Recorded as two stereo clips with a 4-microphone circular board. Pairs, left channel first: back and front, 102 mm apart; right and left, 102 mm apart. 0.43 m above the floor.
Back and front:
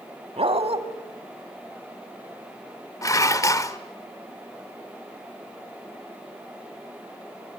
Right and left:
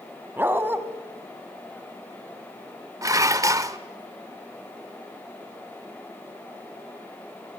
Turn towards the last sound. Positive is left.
turn(degrees=135)